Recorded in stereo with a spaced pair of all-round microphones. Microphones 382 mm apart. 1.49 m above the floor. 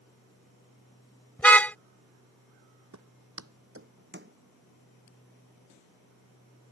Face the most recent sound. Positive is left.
turn(degrees=-25)  # may be behind; listen again after turning